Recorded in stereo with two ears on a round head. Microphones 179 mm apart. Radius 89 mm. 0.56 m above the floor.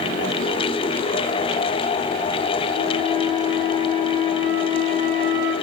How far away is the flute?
About 7.5 m.